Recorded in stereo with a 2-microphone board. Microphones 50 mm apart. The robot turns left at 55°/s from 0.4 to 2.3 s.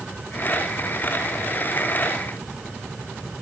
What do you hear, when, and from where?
Only background noise.